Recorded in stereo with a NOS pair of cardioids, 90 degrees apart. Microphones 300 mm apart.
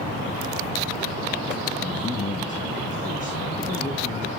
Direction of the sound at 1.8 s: 25° left.